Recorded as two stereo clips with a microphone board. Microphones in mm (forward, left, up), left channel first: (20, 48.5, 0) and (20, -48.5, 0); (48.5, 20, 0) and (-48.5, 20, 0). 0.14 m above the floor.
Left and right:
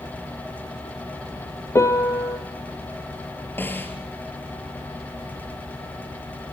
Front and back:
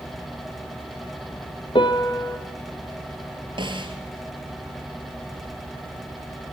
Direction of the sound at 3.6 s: 155° left.